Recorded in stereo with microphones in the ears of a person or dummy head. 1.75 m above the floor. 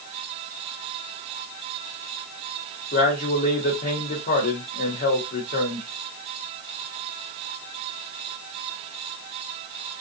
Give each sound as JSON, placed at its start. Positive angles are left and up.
{"t": 2.9, "sound": "a man speaking", "side_deg": 55, "distance_m": 0.8}